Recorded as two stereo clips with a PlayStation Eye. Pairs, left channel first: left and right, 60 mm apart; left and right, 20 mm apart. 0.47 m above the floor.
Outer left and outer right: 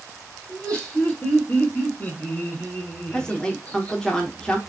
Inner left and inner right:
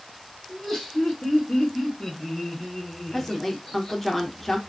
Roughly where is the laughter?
Centre.